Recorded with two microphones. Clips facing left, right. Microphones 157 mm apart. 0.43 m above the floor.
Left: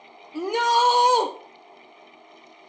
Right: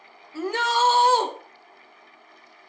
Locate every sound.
0.3 s a shout: 15° left (ahead or behind), 1.0 m